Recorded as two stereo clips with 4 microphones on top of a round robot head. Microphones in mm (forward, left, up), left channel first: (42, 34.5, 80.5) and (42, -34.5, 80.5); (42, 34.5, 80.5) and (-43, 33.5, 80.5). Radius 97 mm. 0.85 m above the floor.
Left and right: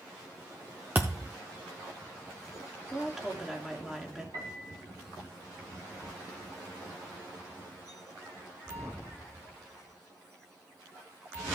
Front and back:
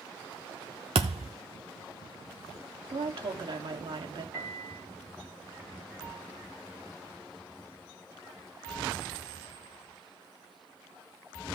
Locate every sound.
0.9 s a thud: 165° right, 0.5 m
2.9 s a woman speaking: 170° right, 2.0 m
4.3 s a piano: 125° right, 3.5 m